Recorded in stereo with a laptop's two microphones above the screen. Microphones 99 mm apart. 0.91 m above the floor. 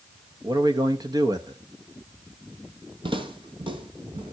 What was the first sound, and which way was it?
A man speaking, 40° right (ahead or behind).